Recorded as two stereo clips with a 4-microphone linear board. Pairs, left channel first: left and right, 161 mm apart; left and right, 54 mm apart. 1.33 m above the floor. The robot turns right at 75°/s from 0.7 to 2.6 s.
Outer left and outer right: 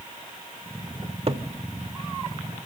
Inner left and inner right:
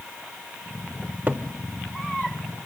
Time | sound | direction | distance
1.0 | a cupboard door | 35° right (ahead or behind) | 1.2 m